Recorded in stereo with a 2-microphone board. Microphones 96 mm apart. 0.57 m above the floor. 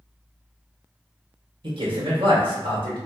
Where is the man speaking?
60° right (ahead or behind), 1.5 m.